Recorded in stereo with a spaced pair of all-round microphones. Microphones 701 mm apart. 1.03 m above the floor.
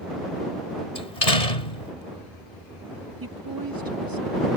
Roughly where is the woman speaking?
Right.